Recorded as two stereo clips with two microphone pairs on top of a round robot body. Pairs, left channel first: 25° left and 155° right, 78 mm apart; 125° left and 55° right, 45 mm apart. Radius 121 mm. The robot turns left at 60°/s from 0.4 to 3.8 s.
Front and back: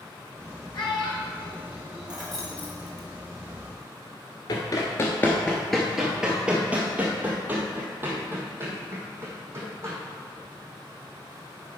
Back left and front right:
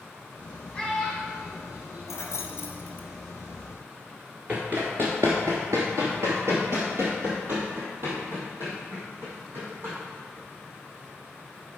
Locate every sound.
0.7 s a child speaking: 60° left, 3 m; by 2.7 s 60° right, 3 m
2.1 s keys jangling: 125° left, 1.2 m; by 3.1 s 65° left, 1.2 m
4.5 s running footsteps: 5° right, 0.9 m; by 9.9 s 100° right, 3.5 m